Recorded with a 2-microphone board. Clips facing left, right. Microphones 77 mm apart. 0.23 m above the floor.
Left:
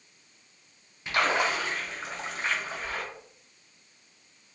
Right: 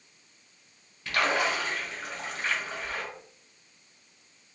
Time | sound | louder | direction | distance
1.1 | a splash | left 1 dB | 20° left (ahead or behind) | 1.3 m